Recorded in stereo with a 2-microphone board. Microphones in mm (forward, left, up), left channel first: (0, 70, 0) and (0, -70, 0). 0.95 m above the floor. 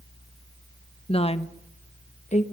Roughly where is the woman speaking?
Left.